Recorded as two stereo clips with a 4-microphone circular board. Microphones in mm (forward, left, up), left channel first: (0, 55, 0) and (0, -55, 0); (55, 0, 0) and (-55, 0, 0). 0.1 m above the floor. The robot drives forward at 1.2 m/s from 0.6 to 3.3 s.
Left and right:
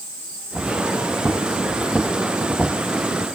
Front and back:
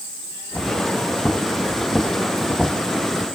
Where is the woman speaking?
I don't hear a woman speaking.